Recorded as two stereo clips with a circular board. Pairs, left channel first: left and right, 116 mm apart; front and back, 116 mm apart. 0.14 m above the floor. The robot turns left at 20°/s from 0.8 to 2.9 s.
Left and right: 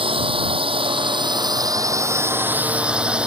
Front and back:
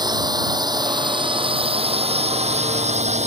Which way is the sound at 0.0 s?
130° right.